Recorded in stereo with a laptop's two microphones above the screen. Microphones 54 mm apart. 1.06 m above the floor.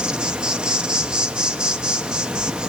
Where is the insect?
15° right (ahead or behind), 0.8 m.